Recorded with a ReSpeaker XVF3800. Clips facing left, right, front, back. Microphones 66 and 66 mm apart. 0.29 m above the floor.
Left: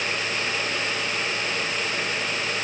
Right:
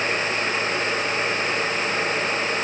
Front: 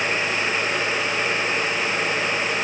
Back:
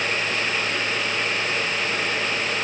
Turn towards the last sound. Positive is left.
No sound to turn to.